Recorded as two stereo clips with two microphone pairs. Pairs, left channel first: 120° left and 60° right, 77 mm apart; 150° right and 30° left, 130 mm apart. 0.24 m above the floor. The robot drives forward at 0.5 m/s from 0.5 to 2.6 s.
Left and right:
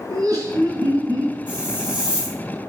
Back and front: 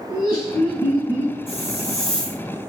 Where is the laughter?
100° right, 3.5 m; by 1.4 s 105° right, 4 m.